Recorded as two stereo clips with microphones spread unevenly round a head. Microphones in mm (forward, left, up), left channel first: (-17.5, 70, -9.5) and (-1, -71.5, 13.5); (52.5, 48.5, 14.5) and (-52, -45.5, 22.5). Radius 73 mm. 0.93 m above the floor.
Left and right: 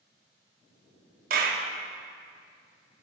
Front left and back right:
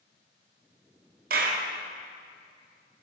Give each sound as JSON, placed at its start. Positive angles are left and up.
{"t": 1.3, "sound": "a clap", "azimuth_deg": -110, "distance_m": 1.5}